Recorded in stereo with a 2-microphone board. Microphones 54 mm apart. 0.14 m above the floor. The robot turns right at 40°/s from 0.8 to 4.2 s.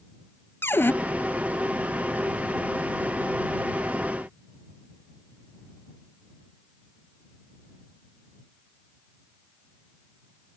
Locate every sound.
0.6 s a cupboard door: 45° left (ahead or behind); by 0.9 s 40° left (ahead or behind)